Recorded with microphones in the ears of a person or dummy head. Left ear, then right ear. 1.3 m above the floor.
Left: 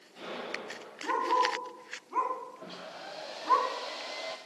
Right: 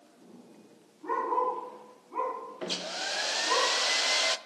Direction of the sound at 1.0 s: 60° left (ahead or behind).